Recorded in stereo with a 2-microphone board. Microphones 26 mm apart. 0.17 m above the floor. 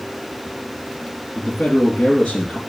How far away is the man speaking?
About 2.5 m.